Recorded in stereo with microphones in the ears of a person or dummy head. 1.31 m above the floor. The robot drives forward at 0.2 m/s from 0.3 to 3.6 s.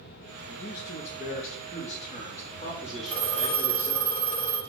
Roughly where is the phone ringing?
Centre.